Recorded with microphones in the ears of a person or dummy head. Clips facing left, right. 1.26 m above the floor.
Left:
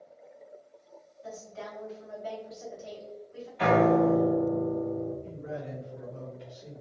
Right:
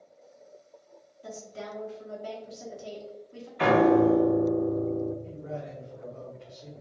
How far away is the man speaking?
About 1.7 m.